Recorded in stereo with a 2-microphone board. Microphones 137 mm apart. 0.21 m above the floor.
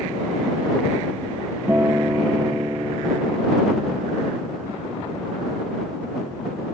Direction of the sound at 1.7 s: 15° right (ahead or behind).